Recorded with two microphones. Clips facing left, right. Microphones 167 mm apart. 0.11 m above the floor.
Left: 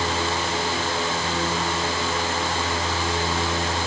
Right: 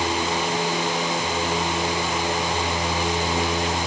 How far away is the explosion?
I don't hear an explosion.